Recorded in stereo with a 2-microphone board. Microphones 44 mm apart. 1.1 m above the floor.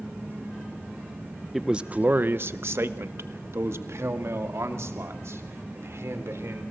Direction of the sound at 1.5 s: 5° right (ahead or behind).